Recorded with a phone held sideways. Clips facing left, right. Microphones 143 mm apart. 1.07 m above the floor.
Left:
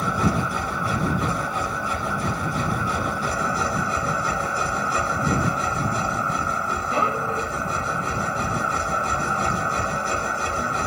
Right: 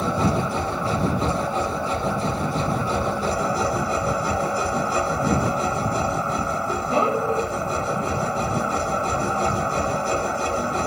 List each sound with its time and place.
0.0 s a machine running: 30° right (ahead or behind)